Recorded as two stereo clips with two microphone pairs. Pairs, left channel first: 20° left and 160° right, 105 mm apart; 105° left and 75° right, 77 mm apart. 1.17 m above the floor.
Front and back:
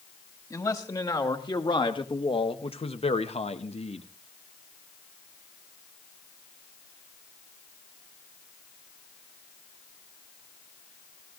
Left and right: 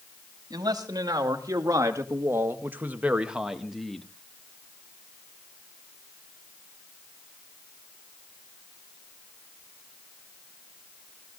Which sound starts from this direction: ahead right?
A man speaking, at 0.5 s.